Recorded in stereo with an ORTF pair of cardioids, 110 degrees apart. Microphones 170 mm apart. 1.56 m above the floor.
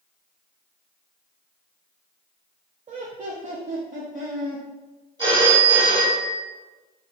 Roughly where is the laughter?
Ahead right.